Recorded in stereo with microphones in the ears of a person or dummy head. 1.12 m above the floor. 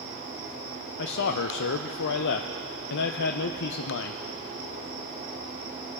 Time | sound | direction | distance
1.0 | a man speaking | 65° left (ahead or behind) | 0.5 m